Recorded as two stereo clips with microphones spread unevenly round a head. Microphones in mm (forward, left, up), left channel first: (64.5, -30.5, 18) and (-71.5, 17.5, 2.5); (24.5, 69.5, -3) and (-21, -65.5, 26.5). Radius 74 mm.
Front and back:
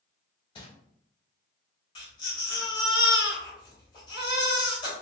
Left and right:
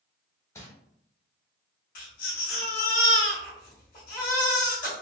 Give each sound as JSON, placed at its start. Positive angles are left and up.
{"t": 0.6, "sound": "crumpling", "azimuth_deg": -5, "distance_m": 0.9}
{"t": 1.9, "sound": "a baby crying", "azimuth_deg": 40, "distance_m": 1.8}